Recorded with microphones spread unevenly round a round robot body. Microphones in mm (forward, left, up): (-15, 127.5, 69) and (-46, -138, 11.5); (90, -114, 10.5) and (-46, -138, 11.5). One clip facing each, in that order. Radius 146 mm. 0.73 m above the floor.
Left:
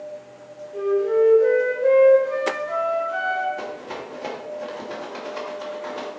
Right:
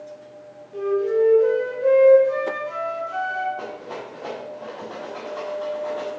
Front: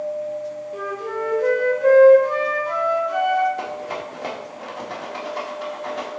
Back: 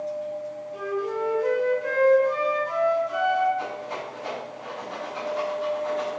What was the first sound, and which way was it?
A flute, 15° right.